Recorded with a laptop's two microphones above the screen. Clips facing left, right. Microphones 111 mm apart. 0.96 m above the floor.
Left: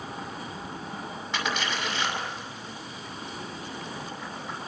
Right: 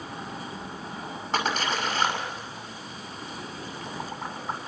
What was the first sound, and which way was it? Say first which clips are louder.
A splash: right 4 dB; 40° right (ahead or behind).